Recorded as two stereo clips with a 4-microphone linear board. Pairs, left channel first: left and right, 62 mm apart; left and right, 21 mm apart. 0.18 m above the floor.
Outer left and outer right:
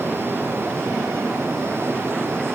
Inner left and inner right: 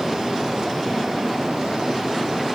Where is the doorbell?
I don't hear a doorbell.